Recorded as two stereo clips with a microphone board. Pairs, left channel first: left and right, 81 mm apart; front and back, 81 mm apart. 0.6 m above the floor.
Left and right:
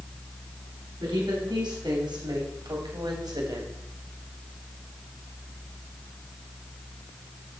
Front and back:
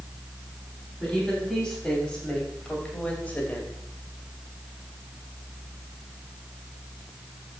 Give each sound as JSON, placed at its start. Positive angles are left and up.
{"t": 1.0, "sound": "a woman speaking", "azimuth_deg": -85, "distance_m": 3.5}